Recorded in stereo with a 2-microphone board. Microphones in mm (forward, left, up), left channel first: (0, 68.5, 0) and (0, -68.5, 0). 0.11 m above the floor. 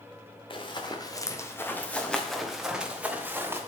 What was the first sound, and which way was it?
Running footsteps, 40° left (ahead or behind).